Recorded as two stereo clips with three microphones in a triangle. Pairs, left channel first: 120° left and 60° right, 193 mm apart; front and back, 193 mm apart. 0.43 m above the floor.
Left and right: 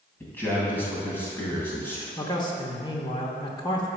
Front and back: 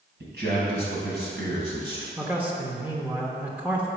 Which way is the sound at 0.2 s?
160° right.